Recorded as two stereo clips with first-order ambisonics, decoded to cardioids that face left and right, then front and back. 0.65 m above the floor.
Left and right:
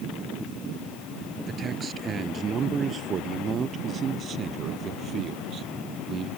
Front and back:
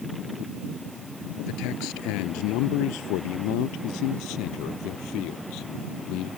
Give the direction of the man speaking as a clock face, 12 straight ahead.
1 o'clock.